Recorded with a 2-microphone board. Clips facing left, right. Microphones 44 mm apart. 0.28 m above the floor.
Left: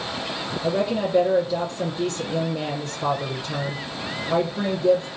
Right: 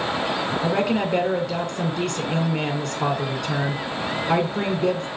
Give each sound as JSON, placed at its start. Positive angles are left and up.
{"t": 0.6, "sound": "a woman speaking", "side_deg": -75, "distance_m": 6.0}